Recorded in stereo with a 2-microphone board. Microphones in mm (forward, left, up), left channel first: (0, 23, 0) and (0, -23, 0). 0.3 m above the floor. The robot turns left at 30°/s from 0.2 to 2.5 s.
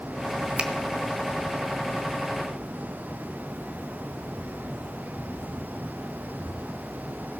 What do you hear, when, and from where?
0.6 s a finger snap: 25° right (ahead or behind), 1.2 m